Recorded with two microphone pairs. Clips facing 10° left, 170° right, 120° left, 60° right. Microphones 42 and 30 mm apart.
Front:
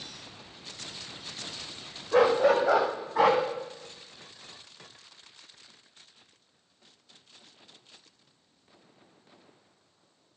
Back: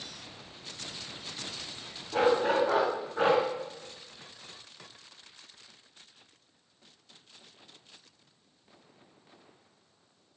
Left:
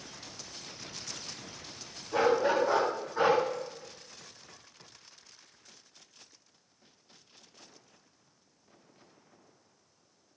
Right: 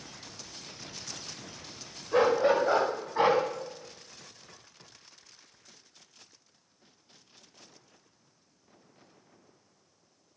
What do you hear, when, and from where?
2.1 s a dog barking: 10° right, 7.5 m; by 3.4 s 5° right, 7.5 m